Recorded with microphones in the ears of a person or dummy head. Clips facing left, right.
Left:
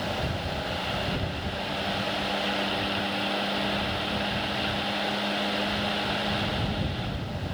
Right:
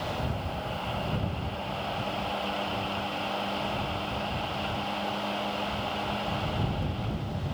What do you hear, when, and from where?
Only background noise.